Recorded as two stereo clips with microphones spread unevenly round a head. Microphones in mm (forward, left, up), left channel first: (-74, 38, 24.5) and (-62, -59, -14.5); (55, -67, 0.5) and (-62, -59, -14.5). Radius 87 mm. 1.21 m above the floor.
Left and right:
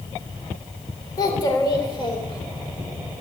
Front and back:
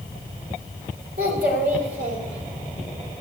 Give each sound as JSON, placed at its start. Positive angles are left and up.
{"t": 1.2, "sound": "a child speaking", "azimuth_deg": 150, "distance_m": 3.5}